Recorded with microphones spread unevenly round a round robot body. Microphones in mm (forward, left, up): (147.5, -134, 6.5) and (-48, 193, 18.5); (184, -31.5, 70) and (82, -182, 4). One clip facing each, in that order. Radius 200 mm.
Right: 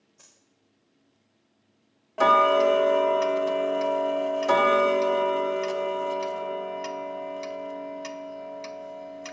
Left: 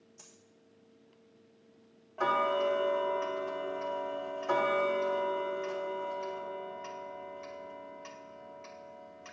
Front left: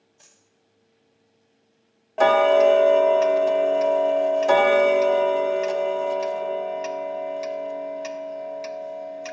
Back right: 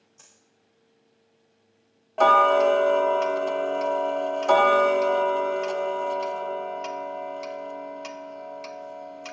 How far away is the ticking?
About 0.7 m.